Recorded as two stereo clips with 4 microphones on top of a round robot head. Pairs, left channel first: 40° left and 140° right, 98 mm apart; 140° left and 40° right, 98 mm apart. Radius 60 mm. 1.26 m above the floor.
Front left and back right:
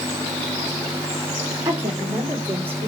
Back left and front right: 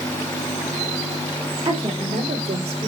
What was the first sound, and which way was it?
A woman speaking, 70° right.